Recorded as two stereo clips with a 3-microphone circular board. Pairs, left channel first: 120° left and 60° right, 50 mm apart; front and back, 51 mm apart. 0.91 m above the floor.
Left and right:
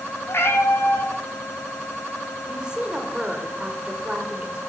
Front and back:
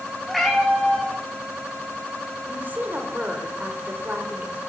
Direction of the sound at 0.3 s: 90° left.